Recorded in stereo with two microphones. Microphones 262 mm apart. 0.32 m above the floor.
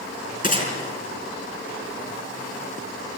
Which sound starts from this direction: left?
A gunshot, at 0.4 s.